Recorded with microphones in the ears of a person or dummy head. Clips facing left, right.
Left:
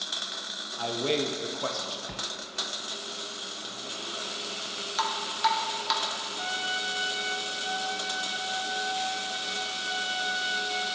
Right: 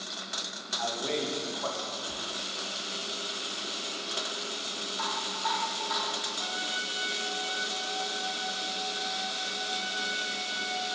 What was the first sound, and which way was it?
A man speaking, 40° left (ahead or behind).